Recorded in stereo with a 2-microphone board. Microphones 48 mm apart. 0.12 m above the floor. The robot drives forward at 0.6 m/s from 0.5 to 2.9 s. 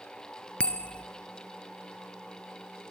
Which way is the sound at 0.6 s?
20° left (ahead or behind).